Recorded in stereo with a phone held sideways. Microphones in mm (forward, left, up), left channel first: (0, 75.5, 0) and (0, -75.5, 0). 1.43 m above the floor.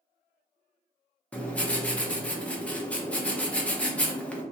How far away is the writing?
About 0.5 m.